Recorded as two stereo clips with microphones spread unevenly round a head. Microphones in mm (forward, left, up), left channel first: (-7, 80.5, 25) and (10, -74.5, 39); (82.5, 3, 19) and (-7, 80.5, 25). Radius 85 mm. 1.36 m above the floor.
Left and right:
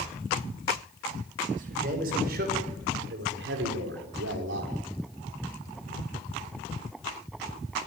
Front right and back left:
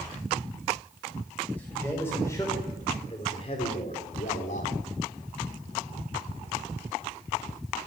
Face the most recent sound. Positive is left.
turn(degrees=-75)